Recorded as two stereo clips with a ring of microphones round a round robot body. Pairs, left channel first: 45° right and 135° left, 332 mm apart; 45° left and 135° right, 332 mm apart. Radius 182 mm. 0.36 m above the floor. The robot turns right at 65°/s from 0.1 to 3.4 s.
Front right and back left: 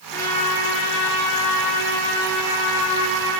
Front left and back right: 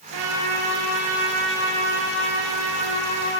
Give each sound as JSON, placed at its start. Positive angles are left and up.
{"t": 0.1, "sound": "a trumpet", "azimuth_deg": -130, "distance_m": 6.5}